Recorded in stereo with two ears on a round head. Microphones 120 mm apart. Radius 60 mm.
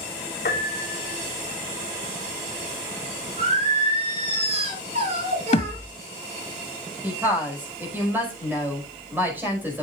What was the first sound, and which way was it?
A piano, 70° left (ahead or behind).